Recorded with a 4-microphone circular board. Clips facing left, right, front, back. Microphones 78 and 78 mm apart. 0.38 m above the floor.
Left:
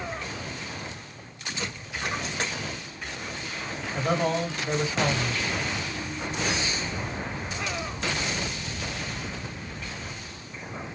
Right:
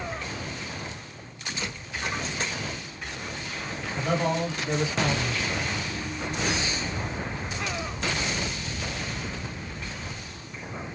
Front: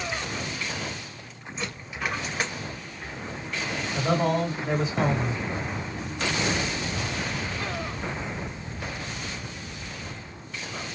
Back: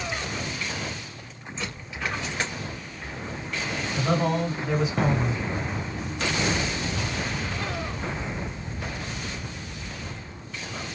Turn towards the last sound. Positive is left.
turn(degrees=50)